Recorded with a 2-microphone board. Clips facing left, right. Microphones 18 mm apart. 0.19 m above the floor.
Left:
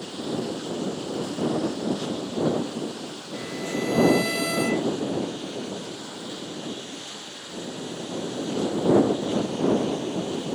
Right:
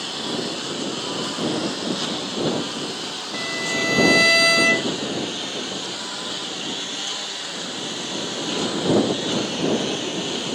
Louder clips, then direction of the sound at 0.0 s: Right 4 dB; 80° right.